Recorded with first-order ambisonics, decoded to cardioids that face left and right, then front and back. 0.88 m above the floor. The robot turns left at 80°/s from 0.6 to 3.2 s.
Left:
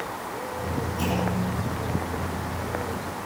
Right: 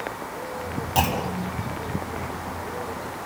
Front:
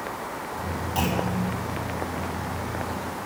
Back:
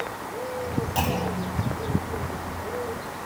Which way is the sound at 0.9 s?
100° right.